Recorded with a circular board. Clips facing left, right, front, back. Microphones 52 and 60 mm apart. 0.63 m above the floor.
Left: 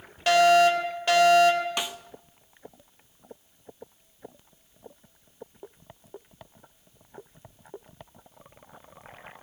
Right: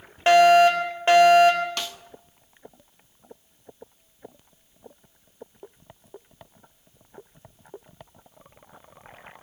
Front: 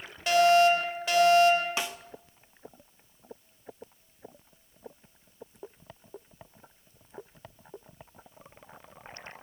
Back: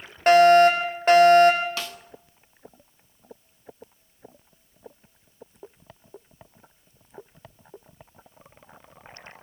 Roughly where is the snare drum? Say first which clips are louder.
Left 1 dB, front 1 dB; ahead left.